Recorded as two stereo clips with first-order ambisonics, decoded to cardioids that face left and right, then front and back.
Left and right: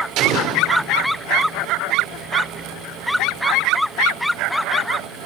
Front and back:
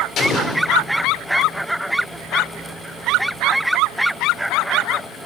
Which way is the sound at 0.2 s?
55° right.